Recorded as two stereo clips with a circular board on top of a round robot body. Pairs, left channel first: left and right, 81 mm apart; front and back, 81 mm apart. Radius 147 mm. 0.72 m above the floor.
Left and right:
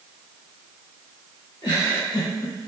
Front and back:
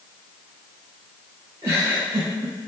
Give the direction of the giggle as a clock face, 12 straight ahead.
8 o'clock.